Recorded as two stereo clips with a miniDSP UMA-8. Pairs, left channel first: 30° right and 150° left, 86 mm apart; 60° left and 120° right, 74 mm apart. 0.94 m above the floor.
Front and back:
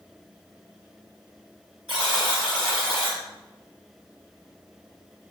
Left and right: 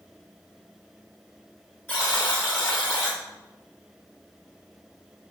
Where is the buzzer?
Straight ahead, 3.5 m.